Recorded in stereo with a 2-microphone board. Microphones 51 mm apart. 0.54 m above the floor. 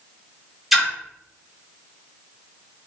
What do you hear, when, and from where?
0.7 s a splash: 5° right (ahead or behind), 1.1 m